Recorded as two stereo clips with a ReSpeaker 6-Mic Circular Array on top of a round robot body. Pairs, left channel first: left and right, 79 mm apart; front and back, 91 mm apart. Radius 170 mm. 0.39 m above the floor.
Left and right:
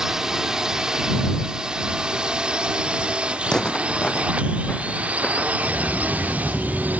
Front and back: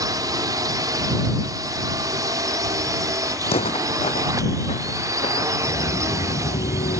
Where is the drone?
170° right; by 7.0 s 150° right.